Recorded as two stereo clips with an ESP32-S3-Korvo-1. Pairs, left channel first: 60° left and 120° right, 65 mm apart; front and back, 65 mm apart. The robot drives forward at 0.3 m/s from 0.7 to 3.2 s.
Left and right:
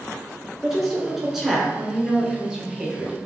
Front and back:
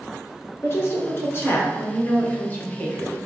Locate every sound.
0.6 s a woman speaking: 30° right, 1.6 m; by 3.2 s 60° right, 1.3 m